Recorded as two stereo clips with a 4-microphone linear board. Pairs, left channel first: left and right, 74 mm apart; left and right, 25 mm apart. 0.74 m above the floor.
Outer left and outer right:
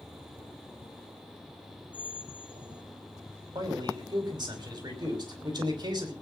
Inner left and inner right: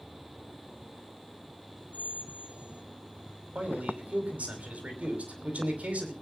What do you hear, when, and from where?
1.9 s a squeak: 75° right (ahead or behind), 2 m
3.5 s a man speaking: 80° right, 5.5 m